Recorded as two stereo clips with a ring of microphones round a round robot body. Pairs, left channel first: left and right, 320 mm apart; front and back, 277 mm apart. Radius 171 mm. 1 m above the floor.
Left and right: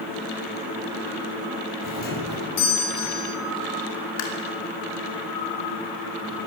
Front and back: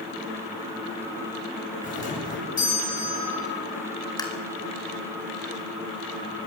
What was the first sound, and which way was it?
A doorbell, 60° left.